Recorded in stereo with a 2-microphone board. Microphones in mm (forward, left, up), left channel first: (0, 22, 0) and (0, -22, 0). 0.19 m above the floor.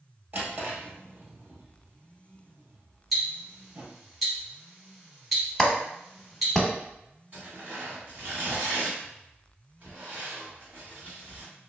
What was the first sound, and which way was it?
A drawer, 50° right (ahead or behind).